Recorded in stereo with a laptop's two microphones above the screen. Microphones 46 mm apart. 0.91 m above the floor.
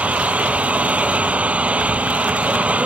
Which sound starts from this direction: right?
An engine running, at 0.0 s.